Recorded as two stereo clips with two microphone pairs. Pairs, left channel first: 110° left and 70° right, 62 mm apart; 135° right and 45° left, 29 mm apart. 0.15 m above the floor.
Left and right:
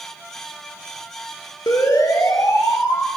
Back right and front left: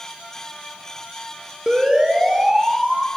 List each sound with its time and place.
1.7 s a siren: 105° left, 2.5 m; by 3.1 s 125° left, 3 m